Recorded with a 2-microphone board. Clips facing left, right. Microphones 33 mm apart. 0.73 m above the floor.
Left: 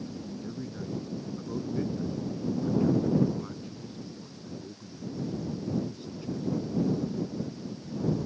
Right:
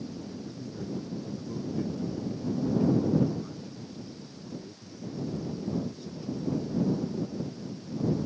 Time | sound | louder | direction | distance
0.3 | a man speaking | left 2 dB | 35° left (ahead or behind) | ?